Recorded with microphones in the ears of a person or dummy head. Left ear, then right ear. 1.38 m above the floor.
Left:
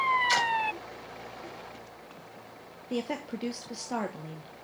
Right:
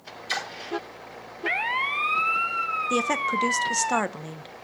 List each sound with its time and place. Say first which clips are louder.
0.3 s a splash: left 4 dB; centre (ahead or behind), 3.5 m
2.9 s a woman speaking: right 7 dB; 55° right (ahead or behind), 1.0 m